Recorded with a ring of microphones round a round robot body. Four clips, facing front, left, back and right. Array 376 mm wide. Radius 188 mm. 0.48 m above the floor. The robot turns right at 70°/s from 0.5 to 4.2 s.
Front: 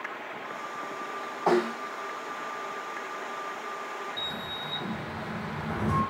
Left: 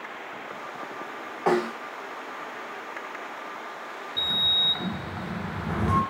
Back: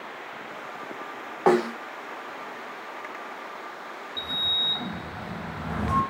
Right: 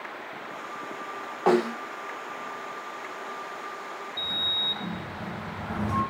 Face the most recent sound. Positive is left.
turn(degrees=100)